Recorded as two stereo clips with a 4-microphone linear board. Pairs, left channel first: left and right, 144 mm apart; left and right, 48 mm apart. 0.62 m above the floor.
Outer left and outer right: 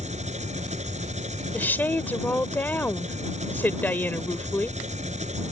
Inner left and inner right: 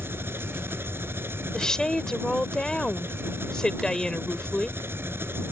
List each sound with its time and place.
0.0 s an engine running: 55° right (ahead or behind)
1.5 s a woman speaking: 10° left (ahead or behind)